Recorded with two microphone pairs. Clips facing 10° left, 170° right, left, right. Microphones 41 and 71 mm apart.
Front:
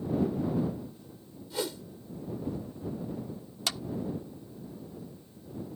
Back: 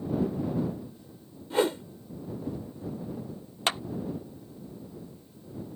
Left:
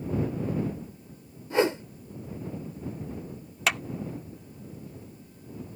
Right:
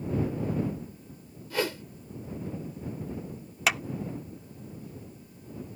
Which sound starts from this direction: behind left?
A whoosh, at 1.5 s.